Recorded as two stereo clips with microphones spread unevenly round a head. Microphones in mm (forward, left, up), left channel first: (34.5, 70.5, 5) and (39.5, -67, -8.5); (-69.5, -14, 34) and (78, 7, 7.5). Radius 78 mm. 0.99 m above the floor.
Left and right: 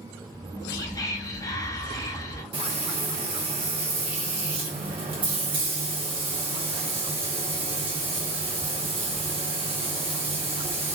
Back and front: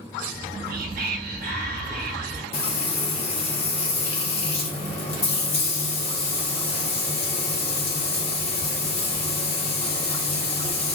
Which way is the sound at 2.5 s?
125° right.